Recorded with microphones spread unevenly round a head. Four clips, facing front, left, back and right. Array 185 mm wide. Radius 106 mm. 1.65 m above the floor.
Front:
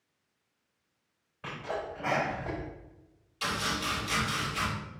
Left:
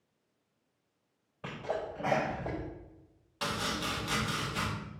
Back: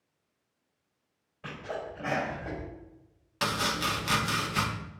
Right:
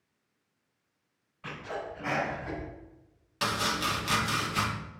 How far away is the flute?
No flute in this recording.